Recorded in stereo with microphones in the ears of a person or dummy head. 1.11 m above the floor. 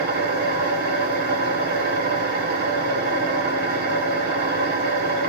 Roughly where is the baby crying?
No baby crying in this recording.